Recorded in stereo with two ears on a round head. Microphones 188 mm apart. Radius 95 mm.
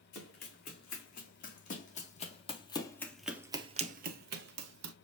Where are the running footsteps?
45° left (ahead or behind), 4 m; by 5.0 s 60° right (ahead or behind), 1.8 m.